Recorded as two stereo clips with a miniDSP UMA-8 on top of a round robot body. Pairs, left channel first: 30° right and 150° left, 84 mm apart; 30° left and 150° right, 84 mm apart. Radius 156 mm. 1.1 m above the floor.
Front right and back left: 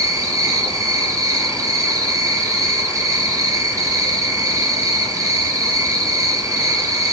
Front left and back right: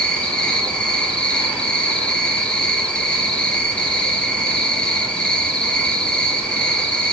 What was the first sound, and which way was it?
An insect, 105° left.